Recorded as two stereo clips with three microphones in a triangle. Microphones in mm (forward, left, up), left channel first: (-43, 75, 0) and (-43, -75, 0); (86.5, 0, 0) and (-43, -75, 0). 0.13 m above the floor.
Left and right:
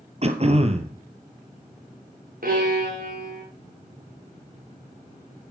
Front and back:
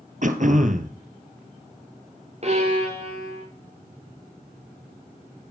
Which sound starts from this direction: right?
A violin, at 2.4 s.